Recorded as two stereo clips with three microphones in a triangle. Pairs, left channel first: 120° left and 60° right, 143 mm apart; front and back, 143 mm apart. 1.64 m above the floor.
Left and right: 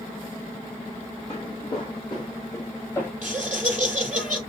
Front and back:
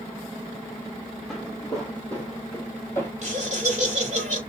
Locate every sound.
1.3 s footsteps: 85° left, 2.5 m; by 3.1 s 55° left, 2 m
3.2 s laughter: 145° right, 3 m